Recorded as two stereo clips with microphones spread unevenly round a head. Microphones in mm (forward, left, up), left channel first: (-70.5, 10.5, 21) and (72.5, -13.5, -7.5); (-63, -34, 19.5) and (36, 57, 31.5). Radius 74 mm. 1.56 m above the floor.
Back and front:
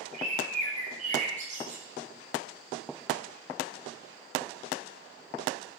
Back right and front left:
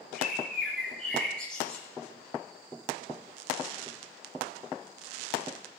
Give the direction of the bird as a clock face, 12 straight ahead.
2 o'clock.